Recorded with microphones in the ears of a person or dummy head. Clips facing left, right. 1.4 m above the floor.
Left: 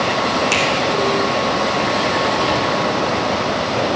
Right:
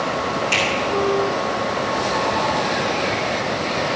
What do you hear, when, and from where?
0.5 s a finger snap: 70° left (ahead or behind), 3 m